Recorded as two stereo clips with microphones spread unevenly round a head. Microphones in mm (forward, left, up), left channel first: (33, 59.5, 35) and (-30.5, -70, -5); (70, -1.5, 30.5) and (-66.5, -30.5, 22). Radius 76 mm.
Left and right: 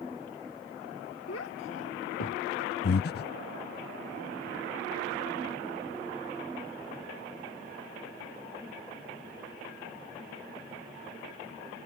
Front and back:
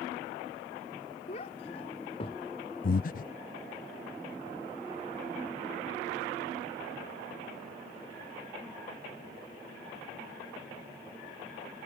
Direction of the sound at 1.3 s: 60° left.